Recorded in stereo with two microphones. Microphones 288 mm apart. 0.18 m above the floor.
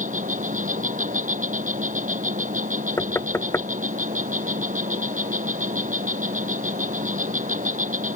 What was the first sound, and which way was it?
An insect, 25° right (ahead or behind).